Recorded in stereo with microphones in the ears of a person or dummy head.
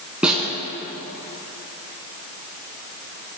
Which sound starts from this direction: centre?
A snare drum, at 0.2 s.